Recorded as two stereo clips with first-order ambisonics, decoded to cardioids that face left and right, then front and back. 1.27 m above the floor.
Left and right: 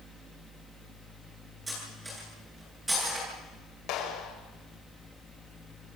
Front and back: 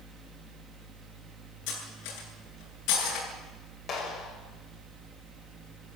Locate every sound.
1.7 s cutlery clinking: 10° right, 9.5 m
3.9 s a clap: 55° left, 6 m